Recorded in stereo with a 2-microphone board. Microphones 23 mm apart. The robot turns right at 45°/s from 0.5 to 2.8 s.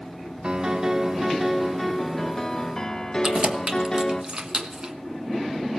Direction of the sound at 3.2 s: 35° right (ahead or behind).